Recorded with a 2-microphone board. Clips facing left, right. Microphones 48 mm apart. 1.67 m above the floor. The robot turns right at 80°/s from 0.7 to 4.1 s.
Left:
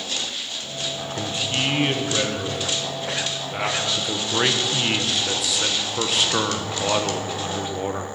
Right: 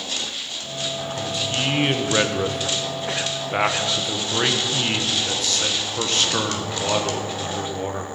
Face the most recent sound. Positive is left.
turn(degrees=10)